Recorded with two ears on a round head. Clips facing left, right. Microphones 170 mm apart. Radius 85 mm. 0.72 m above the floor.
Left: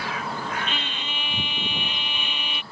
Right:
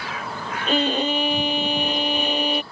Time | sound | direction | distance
0.7 | a violin | 35° right (ahead or behind) | ?